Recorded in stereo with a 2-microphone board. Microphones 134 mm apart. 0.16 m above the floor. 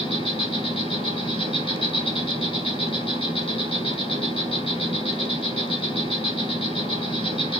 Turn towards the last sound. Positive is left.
turn(degrees=45)  # may be behind; listen again after turning